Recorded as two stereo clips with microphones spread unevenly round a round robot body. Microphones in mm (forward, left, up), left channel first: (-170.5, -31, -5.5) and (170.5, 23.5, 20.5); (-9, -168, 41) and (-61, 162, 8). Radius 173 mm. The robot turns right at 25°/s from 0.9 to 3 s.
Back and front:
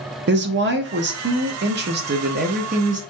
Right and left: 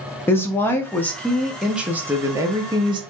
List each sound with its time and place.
0.3 s a woman speaking: 5° left, 0.6 m; by 3.0 s 60° left, 0.6 m